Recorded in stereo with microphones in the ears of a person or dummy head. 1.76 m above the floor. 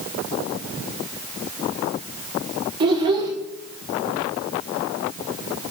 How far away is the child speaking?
About 1.0 m.